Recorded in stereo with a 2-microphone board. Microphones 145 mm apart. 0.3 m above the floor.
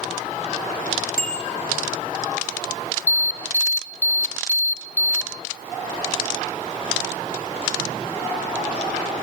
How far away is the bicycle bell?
About 4 m.